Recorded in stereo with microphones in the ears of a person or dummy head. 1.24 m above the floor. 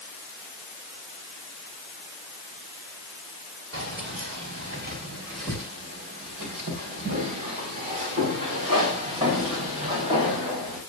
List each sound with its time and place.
3.7 s keys jangling: 70° right (ahead or behind), 4 m; by 10.8 s 25° right (ahead or behind), 6 m